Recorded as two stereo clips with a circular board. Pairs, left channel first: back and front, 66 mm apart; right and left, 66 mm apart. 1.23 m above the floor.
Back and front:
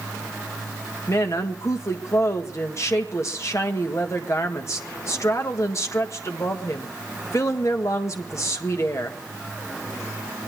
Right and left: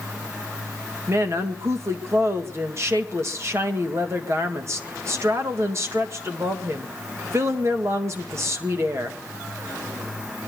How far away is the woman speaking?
About 1.9 m.